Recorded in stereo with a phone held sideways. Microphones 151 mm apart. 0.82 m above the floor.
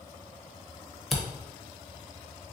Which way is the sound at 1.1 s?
Centre (ahead or behind).